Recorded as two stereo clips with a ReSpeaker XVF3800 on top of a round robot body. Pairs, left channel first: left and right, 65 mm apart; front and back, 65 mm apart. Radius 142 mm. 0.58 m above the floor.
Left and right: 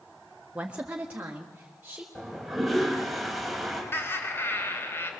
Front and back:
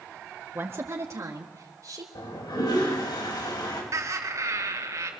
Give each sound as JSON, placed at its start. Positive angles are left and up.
{"t": 0.6, "sound": "a woman speaking", "azimuth_deg": -155, "distance_m": 1.3}
{"t": 2.1, "sound": "a toilet flushing", "azimuth_deg": -5, "distance_m": 5.0}
{"t": 3.9, "sound": "laughter", "azimuth_deg": 140, "distance_m": 3.0}